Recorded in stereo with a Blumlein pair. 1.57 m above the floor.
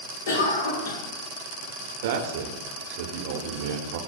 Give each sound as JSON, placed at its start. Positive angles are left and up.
{"t": 0.3, "sound": "a cough", "azimuth_deg": 60, "distance_m": 1.6}
{"t": 2.0, "sound": "a man speaking", "azimuth_deg": -55, "distance_m": 0.8}